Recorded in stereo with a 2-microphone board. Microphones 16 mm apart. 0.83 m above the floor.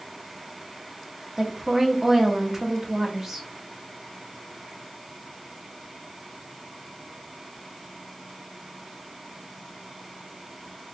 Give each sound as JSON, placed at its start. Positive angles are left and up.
{"t": 1.4, "sound": "a woman speaking", "side_deg": -20, "distance_m": 1.2}